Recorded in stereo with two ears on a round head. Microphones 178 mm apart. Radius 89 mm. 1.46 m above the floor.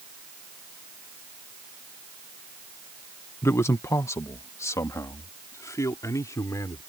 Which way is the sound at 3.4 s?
15° left (ahead or behind).